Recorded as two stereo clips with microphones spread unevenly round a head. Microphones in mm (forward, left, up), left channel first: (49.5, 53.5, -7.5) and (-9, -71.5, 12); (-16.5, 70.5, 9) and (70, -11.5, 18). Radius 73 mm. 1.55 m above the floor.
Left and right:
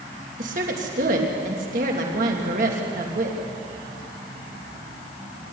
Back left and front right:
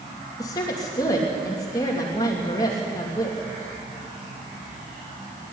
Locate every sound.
0.4 s a woman speaking: 155° right, 3 m